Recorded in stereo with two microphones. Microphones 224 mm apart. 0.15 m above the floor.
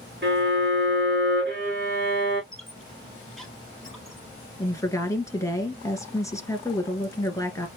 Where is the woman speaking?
15° left (ahead or behind), 1.8 m.